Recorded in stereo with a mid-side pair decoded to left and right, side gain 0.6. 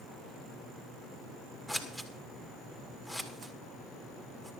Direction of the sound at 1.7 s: 10° left.